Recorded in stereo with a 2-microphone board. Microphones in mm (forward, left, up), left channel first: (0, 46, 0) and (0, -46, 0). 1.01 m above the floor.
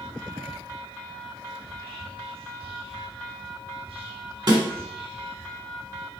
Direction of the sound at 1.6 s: 75° right (ahead or behind).